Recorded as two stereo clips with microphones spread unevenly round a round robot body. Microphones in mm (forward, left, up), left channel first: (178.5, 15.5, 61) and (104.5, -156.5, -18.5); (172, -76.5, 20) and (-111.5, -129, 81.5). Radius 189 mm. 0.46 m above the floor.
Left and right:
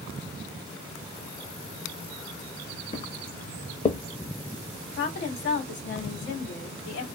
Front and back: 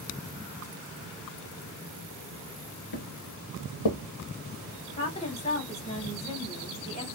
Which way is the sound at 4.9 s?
50° left.